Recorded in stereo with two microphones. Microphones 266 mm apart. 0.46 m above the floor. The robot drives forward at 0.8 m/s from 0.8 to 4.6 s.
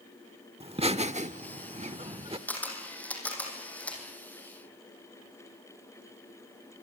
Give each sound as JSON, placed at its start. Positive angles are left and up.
{"t": 0.6, "sound": "laughter", "side_deg": -25, "distance_m": 1.0}
{"t": 2.5, "sound": "a camera shutter", "side_deg": 5, "distance_m": 5.5}